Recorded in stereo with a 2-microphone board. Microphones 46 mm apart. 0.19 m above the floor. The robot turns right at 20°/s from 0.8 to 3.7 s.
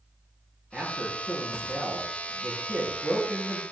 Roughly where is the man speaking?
Behind.